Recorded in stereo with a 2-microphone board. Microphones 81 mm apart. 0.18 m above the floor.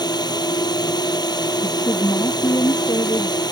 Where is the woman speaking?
50° left (ahead or behind).